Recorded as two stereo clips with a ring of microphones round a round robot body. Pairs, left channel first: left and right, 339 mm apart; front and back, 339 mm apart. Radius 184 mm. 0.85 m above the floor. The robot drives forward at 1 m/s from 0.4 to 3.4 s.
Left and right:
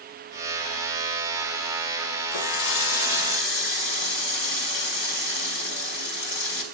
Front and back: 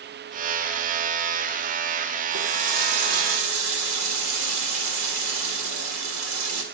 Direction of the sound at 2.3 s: 115° left.